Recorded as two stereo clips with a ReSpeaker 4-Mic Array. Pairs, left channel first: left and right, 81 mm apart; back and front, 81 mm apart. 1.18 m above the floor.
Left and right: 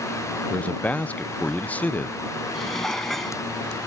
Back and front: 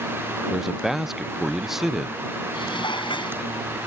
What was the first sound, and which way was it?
A man speaking, 75° left.